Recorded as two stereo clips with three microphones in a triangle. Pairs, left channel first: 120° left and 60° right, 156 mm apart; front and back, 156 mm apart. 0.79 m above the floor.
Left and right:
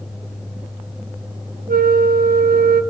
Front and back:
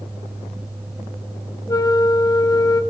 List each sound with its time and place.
1.7 s a flute: 65° right, 0.6 m